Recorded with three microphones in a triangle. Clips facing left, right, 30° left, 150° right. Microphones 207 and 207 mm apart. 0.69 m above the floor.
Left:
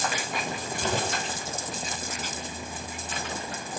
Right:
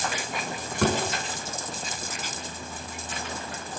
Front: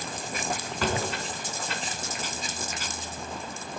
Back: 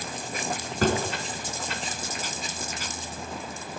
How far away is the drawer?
About 4 m.